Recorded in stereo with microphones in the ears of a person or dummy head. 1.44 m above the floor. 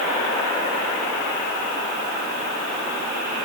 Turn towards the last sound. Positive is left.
No sound to turn to.